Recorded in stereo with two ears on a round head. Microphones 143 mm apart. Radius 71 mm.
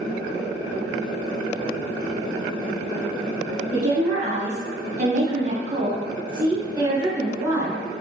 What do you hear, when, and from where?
3.7 s a woman speaking: 35° right (ahead or behind), 1.3 m; by 7.8 s 15° right (ahead or behind), 1.5 m